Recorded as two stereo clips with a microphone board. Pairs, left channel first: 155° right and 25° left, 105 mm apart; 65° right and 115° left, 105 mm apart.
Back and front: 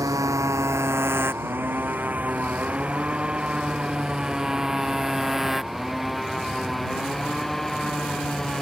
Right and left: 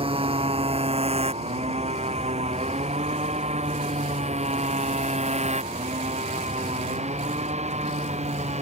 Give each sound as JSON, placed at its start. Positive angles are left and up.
{"t": 0.0, "sound": "a motorcycle", "azimuth_deg": 80}